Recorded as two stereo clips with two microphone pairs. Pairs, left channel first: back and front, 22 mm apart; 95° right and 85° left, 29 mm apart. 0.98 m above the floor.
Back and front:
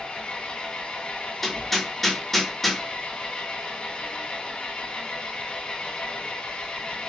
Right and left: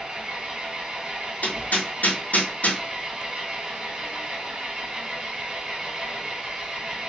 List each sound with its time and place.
0.0 s an engine running: 140° left, 1.4 m
1.4 s hammering: 105° right, 1.2 m